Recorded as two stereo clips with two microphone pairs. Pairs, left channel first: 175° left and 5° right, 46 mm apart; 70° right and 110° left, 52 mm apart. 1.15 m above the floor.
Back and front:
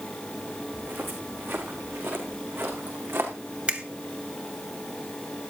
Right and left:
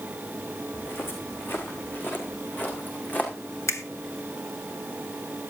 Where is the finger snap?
70° right, 1.2 m.